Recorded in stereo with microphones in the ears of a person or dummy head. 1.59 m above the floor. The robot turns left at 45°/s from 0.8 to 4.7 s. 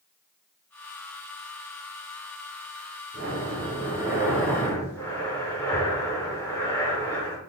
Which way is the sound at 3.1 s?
125° right.